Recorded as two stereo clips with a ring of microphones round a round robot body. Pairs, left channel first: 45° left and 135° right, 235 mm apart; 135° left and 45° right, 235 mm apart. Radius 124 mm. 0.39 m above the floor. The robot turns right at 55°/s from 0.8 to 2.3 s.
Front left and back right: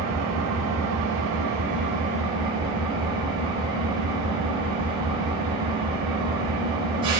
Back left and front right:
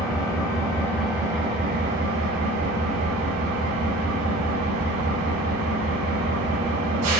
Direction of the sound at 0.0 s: 150° right.